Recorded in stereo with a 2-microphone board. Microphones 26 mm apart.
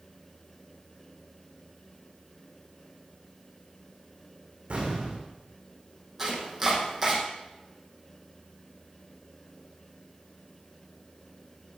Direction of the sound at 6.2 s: 15° right (ahead or behind).